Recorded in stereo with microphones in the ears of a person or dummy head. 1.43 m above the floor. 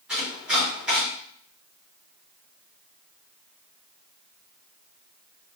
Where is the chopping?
5° right (ahead or behind), 1.7 m.